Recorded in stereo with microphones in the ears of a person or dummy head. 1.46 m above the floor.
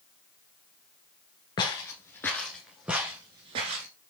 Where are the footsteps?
25° left (ahead or behind), 1.6 m; by 3.9 s 20° right (ahead or behind), 1.5 m.